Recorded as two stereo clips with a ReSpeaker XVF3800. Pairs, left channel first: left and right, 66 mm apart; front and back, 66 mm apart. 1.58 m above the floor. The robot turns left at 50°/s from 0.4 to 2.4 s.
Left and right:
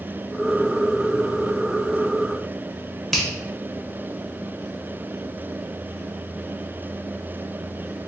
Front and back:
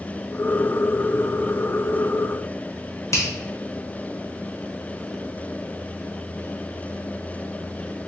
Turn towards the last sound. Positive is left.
turn(degrees=5)